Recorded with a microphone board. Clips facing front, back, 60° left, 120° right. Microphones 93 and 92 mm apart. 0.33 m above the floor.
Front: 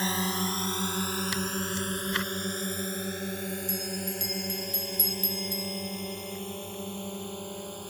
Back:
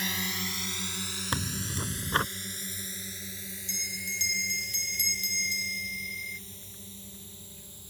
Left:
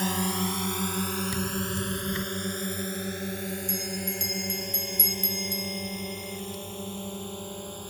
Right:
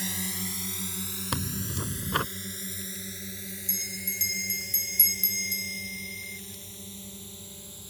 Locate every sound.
0.0 s a drone: 50° left; by 7.9 s 30° left
1.3 s tearing paper: 130° right
3.7 s a bell: 40° left